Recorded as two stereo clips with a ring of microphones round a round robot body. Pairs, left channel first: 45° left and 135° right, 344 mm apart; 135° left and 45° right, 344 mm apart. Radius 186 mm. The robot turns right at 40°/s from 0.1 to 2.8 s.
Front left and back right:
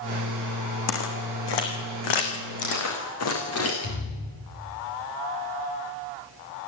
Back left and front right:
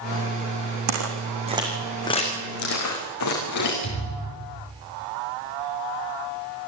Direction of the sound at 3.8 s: 90° left.